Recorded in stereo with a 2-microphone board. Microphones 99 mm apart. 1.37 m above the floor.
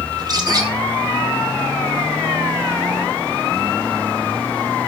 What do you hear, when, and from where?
0.1 s a bird: 40° right (ahead or behind), 2.5 m